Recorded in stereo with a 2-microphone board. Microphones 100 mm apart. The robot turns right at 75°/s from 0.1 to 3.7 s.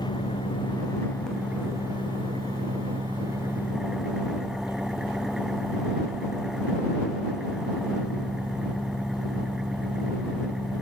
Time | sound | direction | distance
0.0 | an engine running | 85° left | ?